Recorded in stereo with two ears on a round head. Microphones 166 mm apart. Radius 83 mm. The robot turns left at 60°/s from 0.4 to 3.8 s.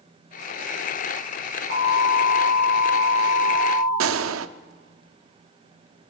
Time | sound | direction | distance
1.7 | an alarm | 100° left | 4 m
4.0 | a gunshot | 80° right | 0.5 m